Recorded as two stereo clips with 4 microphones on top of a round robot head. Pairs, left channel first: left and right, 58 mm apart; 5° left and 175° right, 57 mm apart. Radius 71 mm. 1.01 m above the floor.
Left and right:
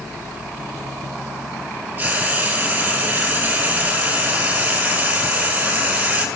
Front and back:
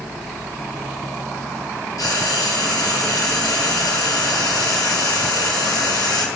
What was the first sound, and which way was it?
Frying, 30° right.